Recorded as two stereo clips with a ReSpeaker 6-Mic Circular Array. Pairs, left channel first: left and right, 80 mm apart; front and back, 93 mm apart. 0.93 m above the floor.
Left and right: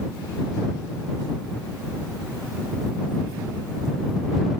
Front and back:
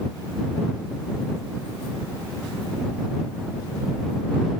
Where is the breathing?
No breathing in this recording.